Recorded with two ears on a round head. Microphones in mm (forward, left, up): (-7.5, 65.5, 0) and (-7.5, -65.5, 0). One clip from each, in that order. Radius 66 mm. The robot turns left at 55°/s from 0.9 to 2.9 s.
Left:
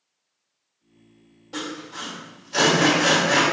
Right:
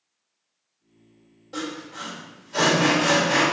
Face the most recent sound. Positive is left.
turn(degrees=35)  # may be behind; listen again after turning